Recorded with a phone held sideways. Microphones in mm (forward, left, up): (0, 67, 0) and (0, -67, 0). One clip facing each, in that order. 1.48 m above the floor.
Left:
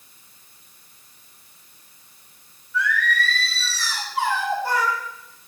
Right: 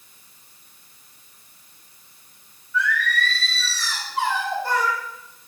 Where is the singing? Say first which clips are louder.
Even; 20° left (ahead or behind), 2 m.